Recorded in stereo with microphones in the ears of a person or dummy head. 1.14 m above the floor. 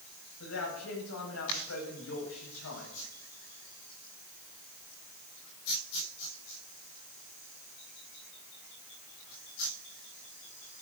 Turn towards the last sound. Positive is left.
turn(degrees=85)